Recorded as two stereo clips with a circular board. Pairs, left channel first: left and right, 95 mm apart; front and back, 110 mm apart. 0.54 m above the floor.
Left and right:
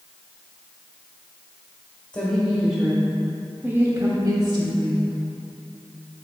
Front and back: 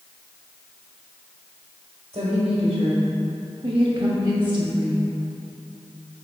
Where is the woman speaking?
150° left, 2.0 m; by 5.0 s 90° right, 1.6 m.